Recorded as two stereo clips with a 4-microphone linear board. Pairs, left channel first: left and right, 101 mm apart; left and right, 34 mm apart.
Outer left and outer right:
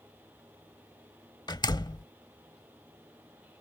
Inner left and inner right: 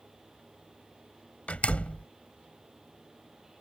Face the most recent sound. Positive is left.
turn(degrees=45)  # may be behind; listen again after turning